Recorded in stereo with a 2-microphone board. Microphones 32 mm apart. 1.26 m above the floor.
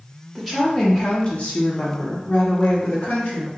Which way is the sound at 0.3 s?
10° right (ahead or behind).